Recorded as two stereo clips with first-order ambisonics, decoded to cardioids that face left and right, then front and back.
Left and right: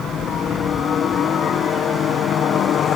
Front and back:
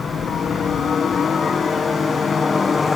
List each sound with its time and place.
0.0 s a helicopter: 50° left; by 3.0 s 70° left